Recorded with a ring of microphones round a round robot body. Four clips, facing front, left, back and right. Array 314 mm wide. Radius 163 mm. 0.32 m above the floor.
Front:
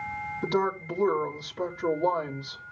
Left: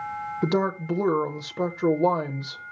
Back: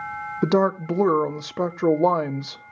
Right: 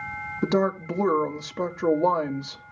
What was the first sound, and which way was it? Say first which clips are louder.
A woman speaking: right 1 dB, back 8 dB; 175° right.